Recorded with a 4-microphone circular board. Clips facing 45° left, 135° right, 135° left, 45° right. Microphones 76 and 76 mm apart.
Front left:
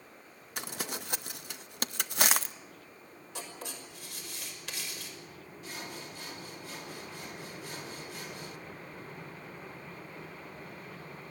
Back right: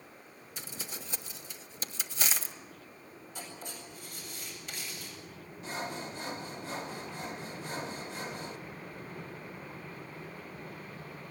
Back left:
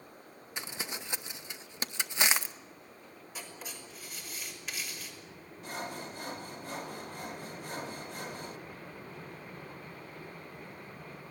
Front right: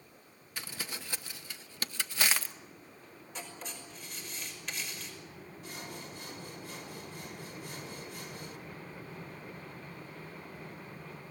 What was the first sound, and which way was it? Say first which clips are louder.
Crumpling: front left 6 dB, back left 2 dB; 65° left.